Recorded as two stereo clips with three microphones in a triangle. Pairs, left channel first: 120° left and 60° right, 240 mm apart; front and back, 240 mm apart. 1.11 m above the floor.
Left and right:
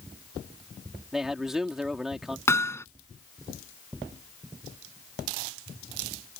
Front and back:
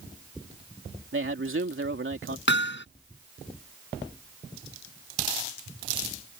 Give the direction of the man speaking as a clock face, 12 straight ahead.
5 o'clock.